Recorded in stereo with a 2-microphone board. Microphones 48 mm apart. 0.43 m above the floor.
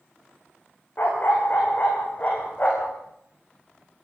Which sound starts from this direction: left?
A dog barking, at 1.0 s.